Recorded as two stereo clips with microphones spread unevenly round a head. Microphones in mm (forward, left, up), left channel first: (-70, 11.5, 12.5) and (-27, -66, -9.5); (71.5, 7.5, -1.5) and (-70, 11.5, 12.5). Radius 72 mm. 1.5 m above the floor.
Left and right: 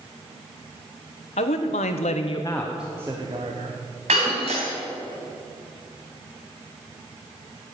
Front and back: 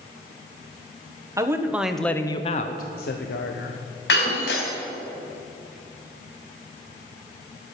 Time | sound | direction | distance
1.4 | a man speaking | 110° left | 1.3 m
4.1 | breaking glass | 15° right | 3.5 m